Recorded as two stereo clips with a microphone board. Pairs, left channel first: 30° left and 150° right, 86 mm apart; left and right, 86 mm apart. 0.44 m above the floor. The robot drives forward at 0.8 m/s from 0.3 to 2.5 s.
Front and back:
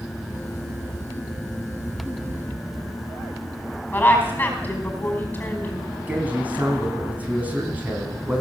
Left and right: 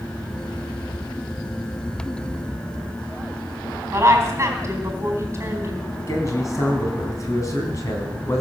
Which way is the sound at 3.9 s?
35° right.